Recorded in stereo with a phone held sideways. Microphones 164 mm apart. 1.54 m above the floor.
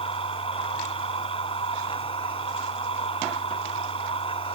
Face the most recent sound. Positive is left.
turn(degrees=35)  # may be behind; listen again after turning